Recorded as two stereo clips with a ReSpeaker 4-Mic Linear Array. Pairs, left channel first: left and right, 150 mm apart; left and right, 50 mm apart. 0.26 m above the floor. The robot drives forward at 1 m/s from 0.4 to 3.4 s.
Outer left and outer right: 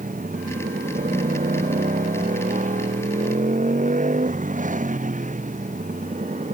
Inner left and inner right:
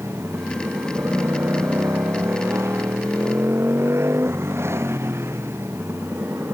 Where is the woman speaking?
No woman speaking in this recording.